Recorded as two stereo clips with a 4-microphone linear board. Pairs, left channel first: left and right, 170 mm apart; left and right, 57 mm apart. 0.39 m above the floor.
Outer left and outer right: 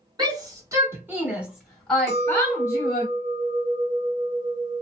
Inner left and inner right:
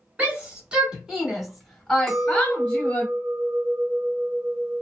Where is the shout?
25° right (ahead or behind), 1.2 m; by 3.1 s 20° left (ahead or behind), 1.3 m.